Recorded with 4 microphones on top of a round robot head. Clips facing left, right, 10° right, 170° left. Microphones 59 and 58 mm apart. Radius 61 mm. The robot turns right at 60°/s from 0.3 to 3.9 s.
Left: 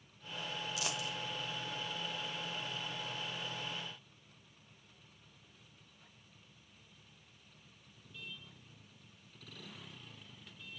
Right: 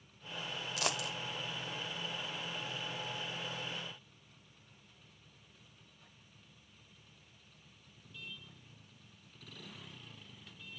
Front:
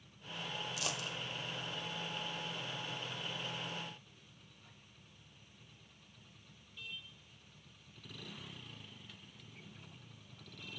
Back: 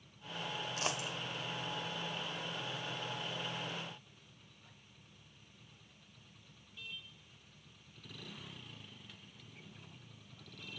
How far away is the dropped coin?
About 0.8 m.